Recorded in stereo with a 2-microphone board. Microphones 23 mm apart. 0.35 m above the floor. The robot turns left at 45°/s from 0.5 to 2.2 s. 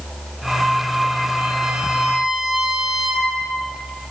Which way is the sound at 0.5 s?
80° right.